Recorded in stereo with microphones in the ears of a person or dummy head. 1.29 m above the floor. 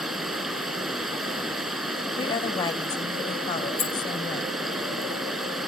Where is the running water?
Centre (ahead or behind).